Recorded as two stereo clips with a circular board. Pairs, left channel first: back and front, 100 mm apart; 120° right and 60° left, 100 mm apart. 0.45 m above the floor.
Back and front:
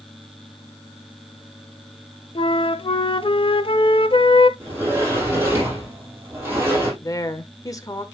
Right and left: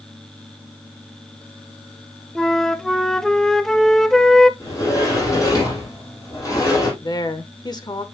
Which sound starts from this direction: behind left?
A flute, at 2.4 s.